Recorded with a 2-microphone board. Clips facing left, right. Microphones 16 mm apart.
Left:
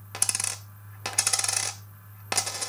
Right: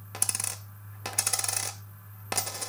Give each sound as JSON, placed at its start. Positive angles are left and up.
{"t": 0.1, "sound": "a dropped coin", "side_deg": 20, "distance_m": 0.6}